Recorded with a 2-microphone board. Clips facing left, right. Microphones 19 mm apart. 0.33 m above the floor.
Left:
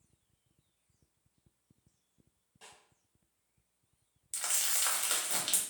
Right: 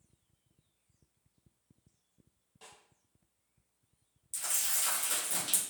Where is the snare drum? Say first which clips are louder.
Even; 5° right (ahead or behind), 1.1 m.